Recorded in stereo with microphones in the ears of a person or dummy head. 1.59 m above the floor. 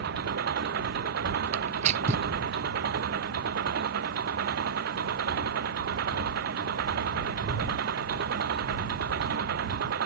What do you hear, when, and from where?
0.0 s an engine running: 65° right (ahead or behind)
1.5 s tearing paper: 40° right (ahead or behind)